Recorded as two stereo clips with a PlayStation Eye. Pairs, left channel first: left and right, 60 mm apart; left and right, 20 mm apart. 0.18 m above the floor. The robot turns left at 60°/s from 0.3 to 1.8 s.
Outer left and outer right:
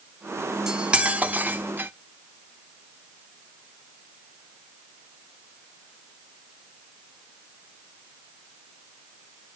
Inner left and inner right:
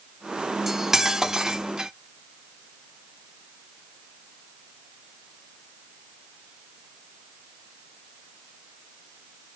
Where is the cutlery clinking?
15° right, 0.6 m; by 1.9 s 85° right, 0.6 m.